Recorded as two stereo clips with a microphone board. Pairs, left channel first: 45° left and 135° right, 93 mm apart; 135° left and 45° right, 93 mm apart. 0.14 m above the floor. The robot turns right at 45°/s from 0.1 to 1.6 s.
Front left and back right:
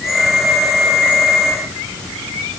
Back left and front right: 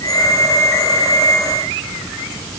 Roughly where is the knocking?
I don't hear knocking.